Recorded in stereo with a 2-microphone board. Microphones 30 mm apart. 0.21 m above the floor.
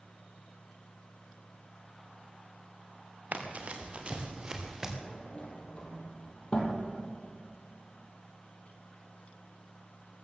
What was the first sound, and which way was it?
Running footsteps, 60° right (ahead or behind).